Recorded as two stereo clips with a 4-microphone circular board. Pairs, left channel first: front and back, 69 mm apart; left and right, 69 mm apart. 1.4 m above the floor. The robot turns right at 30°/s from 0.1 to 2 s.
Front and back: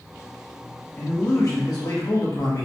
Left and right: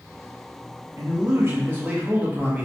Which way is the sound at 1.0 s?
50° right.